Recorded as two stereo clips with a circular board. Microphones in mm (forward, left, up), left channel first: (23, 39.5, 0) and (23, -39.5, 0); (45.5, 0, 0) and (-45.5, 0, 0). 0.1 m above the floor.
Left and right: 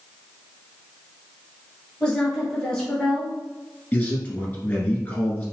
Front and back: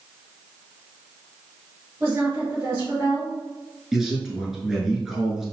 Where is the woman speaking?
155° left, 1.7 m.